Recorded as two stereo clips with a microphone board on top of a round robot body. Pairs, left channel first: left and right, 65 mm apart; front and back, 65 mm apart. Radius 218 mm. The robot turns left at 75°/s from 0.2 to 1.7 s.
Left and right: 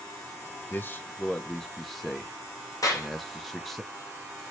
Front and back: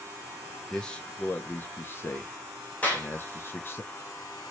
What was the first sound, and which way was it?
A man speaking, 80° left.